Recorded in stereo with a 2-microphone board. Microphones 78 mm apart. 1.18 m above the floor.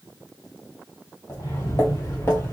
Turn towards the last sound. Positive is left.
turn(degrees=30)  # may be behind; listen again after turning